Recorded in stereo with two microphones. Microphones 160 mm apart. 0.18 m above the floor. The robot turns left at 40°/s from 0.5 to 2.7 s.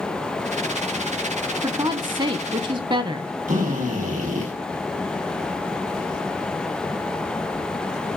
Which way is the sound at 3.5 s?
50° right (ahead or behind).